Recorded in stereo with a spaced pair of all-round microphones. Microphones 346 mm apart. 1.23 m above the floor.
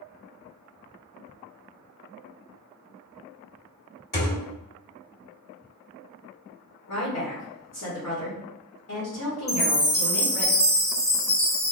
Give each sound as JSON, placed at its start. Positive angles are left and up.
{"t": 4.1, "sound": "a thud", "side_deg": 60, "distance_m": 1.5}
{"t": 6.9, "sound": "a woman speaking", "side_deg": 60, "distance_m": 1.2}
{"t": 9.5, "sound": "a chime", "side_deg": 25, "distance_m": 1.2}